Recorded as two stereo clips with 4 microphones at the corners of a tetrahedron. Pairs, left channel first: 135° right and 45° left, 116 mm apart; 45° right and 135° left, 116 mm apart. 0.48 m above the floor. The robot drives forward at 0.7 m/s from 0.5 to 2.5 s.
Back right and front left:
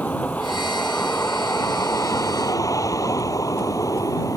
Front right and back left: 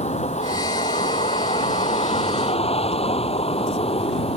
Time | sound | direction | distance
0.0 | a vehicle | 60° right | ?